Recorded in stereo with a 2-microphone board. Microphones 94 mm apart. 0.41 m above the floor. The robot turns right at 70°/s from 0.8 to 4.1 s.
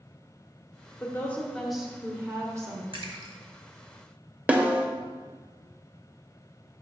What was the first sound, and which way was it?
A woman speaking, 130° left.